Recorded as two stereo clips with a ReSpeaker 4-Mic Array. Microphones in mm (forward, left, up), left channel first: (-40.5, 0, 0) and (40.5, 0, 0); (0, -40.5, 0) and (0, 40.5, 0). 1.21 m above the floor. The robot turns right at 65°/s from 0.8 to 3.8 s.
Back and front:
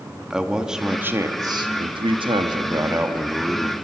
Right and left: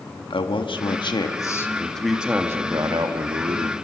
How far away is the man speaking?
About 1.8 m.